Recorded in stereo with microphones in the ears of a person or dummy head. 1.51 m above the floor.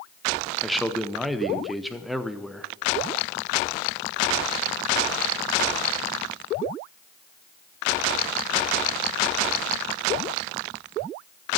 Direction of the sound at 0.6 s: Centre (ahead or behind).